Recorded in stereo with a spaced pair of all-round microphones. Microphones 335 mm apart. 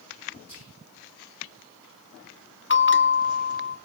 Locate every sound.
0.5 s whispering: 80° right, 5 m
2.7 s a bell: 35° left (ahead or behind), 0.7 m